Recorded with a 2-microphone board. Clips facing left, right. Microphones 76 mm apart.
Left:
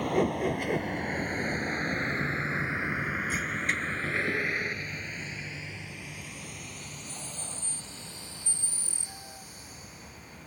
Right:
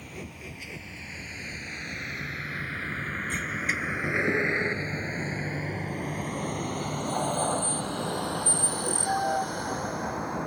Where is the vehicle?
65° left (ahead or behind); by 10.5 s 70° right (ahead or behind).